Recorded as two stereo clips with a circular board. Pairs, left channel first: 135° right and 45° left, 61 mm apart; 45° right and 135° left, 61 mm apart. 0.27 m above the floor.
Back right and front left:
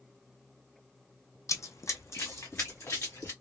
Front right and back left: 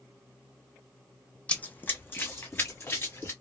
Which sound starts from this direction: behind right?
Running footsteps, at 1.5 s.